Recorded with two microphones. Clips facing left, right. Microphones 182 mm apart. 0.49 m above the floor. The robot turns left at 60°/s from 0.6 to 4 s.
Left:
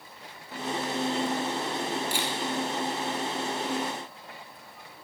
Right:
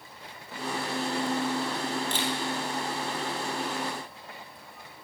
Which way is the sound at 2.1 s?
10° left (ahead or behind).